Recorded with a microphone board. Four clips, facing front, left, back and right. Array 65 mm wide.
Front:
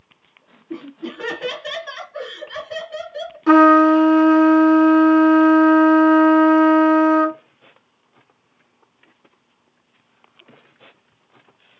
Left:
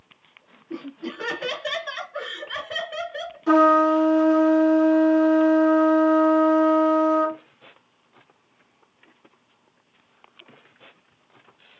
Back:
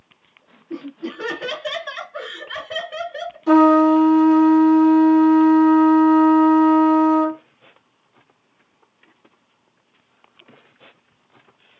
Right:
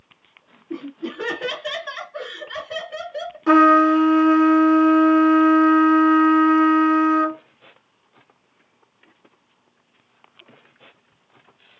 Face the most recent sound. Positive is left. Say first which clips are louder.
# right 3 dB, front 2 dB
turn(degrees=-30)